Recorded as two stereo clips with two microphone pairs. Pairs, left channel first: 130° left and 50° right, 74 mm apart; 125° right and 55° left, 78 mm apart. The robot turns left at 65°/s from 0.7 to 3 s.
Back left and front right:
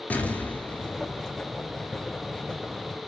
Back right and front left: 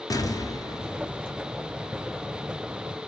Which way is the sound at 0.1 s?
165° right.